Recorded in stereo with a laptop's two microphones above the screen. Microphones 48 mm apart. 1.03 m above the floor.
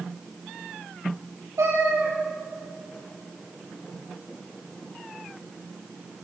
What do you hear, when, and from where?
1.6 s a cat meowing: 75° right (ahead or behind), 5.5 m